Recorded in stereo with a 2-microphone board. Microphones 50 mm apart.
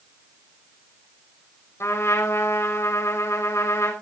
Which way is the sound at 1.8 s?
60° left (ahead or behind).